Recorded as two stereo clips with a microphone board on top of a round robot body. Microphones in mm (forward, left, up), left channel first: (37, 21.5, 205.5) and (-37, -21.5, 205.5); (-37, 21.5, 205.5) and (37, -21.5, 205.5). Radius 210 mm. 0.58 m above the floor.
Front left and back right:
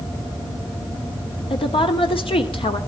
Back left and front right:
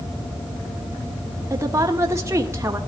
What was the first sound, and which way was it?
A woman speaking, 30° left.